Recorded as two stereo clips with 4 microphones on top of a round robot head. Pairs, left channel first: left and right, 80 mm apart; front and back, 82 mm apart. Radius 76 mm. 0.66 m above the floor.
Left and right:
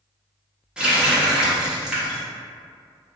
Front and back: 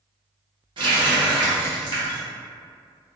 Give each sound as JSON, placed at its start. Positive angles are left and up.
{"t": 0.8, "sound": "a running tap", "azimuth_deg": -170, "distance_m": 1.1}